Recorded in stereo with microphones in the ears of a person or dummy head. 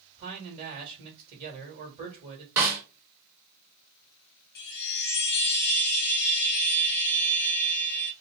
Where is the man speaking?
35° right (ahead or behind), 1.9 m.